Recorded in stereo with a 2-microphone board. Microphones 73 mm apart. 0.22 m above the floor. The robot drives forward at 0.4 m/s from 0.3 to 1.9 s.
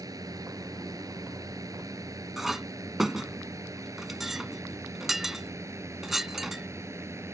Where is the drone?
55° right (ahead or behind); by 7.3 s 40° right (ahead or behind).